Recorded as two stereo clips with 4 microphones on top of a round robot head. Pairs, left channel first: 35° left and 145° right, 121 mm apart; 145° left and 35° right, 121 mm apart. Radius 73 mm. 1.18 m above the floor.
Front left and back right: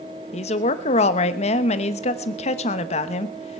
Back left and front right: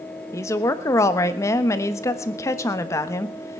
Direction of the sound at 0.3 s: 75° left.